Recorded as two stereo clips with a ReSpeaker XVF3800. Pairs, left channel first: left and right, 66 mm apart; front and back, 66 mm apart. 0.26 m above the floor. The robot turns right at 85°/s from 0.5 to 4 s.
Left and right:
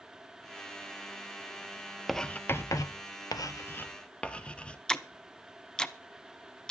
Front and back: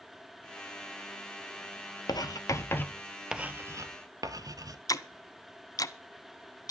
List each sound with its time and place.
2.1 s writing: straight ahead, 0.9 m; by 4.8 s 160° left, 0.9 m
4.9 s ticking: 10° left, 0.8 m